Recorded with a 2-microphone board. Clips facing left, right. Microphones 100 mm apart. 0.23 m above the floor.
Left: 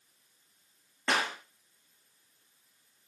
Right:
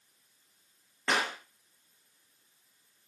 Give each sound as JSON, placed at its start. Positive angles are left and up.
{"t": 1.1, "sound": "a clap", "side_deg": 0, "distance_m": 5.5}